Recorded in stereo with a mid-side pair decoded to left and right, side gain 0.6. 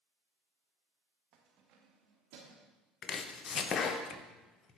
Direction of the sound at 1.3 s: 60° right.